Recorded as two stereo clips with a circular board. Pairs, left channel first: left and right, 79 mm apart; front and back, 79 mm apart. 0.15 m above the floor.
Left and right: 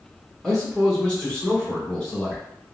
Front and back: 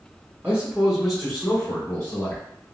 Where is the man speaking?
155° left, 1.7 m; by 2.4 s 25° left, 1.8 m.